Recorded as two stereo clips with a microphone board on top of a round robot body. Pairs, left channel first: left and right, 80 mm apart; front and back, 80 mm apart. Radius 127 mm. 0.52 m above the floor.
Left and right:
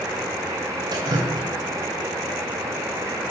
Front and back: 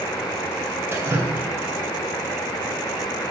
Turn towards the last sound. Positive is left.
turn(degrees=-120)